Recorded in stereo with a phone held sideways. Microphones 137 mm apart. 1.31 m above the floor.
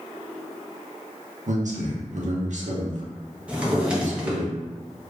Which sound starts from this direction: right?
A man speaking, at 1.5 s.